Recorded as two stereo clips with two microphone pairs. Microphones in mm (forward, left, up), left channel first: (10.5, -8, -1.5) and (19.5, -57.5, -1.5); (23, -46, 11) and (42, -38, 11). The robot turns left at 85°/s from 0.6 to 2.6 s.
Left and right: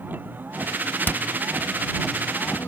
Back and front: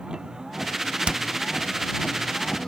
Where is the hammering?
50° left; by 1.2 s 35° left.